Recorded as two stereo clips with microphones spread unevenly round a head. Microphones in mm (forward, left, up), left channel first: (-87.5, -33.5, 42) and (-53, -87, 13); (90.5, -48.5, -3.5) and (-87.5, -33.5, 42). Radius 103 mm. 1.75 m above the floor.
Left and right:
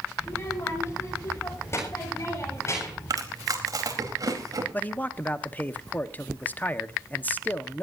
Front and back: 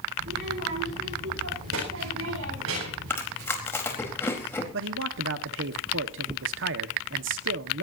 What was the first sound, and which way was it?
A child speaking, 170° left.